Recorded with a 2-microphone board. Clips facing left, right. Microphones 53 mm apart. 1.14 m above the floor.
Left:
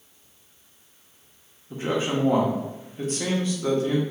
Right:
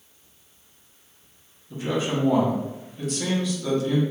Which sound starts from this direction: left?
A man speaking, at 1.7 s.